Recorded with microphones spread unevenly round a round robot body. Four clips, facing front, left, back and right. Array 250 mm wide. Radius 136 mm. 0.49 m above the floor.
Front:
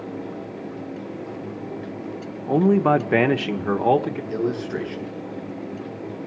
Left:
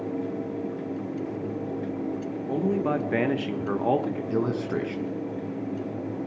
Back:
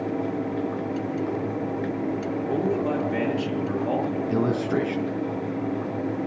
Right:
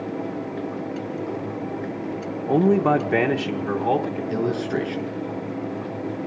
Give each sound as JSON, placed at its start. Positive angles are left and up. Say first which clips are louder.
{"t": 2.5, "sound": "a man speaking", "louder": "right 8 dB, front 9 dB", "azimuth_deg": -70, "distance_m": 0.9}
{"t": 4.3, "sound": "a man speaking", "louder": "right 3 dB, back 1 dB", "azimuth_deg": 165, "distance_m": 5.0}